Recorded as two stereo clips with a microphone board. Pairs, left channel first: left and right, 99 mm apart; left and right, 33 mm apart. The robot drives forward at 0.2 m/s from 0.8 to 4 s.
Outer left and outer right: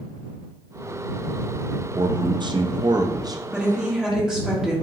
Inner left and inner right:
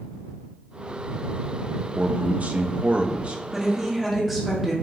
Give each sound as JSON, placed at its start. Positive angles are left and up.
{"t": 1.9, "sound": "a man speaking", "side_deg": -50, "distance_m": 0.5}
{"t": 3.5, "sound": "a woman speaking", "side_deg": -10, "distance_m": 1.3}